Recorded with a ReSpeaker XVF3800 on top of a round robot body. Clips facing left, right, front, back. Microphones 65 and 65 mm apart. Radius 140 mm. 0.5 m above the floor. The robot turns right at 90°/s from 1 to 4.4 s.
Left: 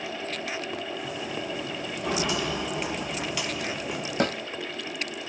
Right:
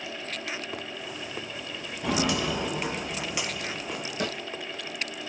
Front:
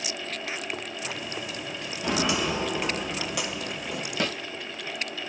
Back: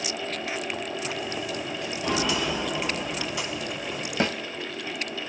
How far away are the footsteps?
About 0.9 m.